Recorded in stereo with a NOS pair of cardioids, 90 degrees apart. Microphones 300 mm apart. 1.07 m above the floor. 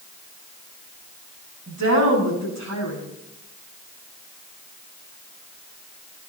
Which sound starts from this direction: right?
A woman speaking, at 1.7 s.